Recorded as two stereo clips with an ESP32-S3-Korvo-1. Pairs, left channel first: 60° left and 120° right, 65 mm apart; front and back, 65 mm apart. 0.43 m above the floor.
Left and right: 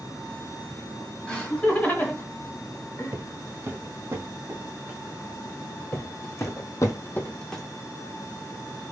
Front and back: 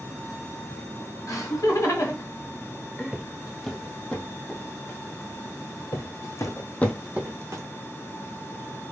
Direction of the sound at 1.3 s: 10° right.